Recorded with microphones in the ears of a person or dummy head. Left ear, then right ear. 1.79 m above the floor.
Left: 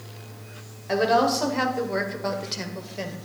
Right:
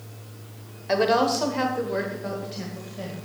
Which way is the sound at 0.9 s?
15° right (ahead or behind).